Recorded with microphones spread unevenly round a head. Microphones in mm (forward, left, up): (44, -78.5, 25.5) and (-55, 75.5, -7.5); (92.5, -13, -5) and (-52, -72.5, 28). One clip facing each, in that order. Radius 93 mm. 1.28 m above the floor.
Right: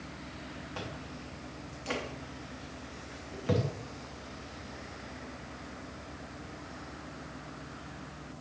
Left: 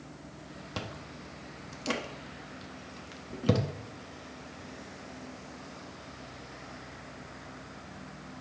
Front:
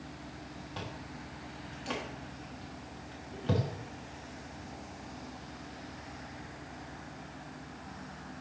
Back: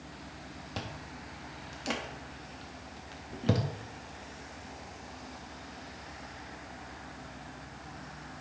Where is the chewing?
160° left, 1.1 m.